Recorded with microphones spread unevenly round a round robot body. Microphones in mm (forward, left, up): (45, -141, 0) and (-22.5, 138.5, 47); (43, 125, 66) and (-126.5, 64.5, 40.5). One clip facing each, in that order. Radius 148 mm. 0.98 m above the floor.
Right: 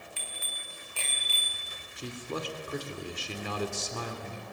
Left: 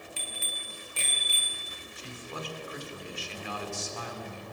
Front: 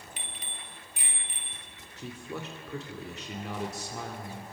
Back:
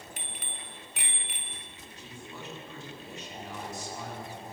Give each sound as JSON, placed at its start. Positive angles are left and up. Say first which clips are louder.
{"t": 0.2, "sound": "a bicycle bell", "louder": "left 4 dB, back 2 dB", "azimuth_deg": 155, "distance_m": 2.5}
{"t": 2.0, "sound": "a man speaking", "louder": "right 5 dB, front 7 dB", "azimuth_deg": -30, "distance_m": 2.5}